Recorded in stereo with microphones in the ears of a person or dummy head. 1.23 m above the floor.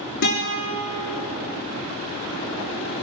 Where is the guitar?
60° left (ahead or behind), 6 m.